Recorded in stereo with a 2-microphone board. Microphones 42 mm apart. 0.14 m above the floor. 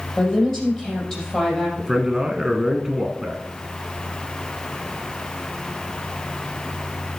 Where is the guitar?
I don't hear a guitar.